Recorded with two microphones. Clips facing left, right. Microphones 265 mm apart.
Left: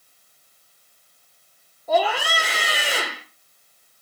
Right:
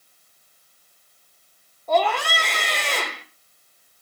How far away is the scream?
About 1.3 m.